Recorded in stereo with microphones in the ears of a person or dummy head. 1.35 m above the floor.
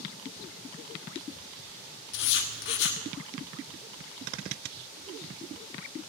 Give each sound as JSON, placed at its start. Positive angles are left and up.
{"t": 2.1, "sound": "writing", "side_deg": 60, "distance_m": 1.4}